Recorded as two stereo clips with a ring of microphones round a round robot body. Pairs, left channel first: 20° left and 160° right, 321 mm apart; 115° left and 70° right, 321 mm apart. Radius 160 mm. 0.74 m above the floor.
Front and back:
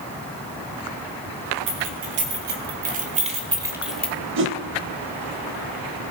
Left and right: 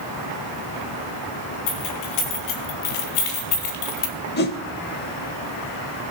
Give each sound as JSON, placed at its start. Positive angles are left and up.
{"t": 1.7, "sound": "keys jangling", "azimuth_deg": 150, "distance_m": 2.0}
{"t": 4.4, "sound": "a whoosh", "azimuth_deg": 160, "distance_m": 0.6}